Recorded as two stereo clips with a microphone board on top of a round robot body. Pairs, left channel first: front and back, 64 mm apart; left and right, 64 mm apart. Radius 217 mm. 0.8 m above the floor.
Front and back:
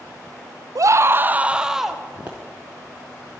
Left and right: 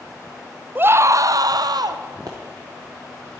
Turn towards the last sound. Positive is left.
turn(degrees=-110)